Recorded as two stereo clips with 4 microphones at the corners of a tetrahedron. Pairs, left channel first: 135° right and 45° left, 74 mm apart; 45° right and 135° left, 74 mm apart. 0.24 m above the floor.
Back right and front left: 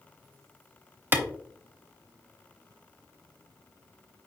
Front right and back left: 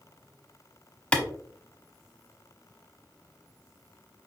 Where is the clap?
10° left, 0.8 m.